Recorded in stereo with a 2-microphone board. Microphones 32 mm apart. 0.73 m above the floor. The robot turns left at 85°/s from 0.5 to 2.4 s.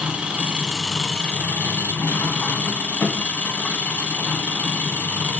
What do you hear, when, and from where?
0.0 s an engine running: 150° right, 1.8 m; by 5.4 s 50° left, 1.8 m